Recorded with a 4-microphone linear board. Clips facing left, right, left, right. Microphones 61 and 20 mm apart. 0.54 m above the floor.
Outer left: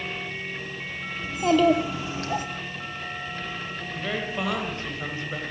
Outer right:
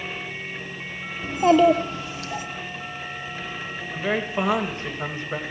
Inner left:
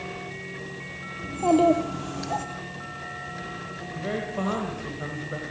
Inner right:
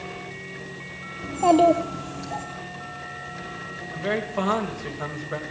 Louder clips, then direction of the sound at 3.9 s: Outer right 5 dB, inner right 4 dB; 25° right (ahead or behind).